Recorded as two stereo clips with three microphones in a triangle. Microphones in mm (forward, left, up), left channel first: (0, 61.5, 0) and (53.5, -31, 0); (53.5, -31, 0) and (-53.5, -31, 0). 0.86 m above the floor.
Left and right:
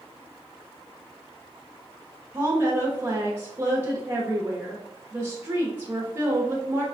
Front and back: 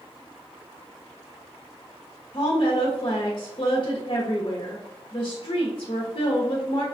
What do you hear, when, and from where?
2.3 s a woman speaking: straight ahead, 0.8 m